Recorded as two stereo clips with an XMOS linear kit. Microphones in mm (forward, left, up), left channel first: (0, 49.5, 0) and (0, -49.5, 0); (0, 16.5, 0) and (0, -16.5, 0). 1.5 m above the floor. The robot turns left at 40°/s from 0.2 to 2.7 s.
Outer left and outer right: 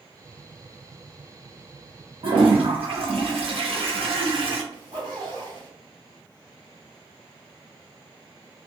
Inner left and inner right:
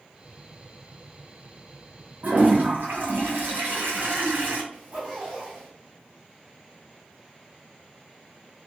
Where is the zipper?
50° right (ahead or behind), 1.9 m.